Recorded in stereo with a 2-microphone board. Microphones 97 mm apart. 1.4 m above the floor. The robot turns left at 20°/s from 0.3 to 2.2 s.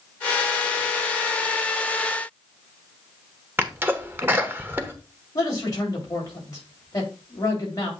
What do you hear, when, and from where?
3.6 s a sneeze: 20° right (ahead or behind), 1.1 m
5.3 s a man speaking: 40° left (ahead or behind), 3.5 m